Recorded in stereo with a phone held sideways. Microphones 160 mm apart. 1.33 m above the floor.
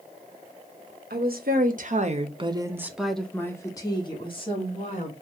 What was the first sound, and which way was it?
A woman speaking, 75° right (ahead or behind).